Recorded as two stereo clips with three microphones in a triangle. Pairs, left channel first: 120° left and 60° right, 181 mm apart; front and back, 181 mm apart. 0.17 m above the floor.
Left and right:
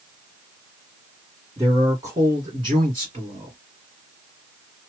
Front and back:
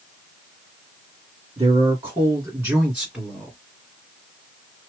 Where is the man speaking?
130° right, 2 m; by 3.6 s 90° right, 1.9 m.